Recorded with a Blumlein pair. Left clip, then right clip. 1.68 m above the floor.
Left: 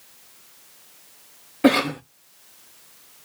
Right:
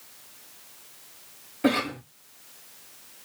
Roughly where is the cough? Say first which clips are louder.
Left 6 dB; ahead left.